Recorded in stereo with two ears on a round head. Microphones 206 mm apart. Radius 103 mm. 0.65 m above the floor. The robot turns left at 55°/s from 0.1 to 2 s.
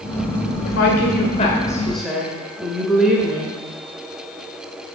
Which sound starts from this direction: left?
A woman speaking, at 0.7 s.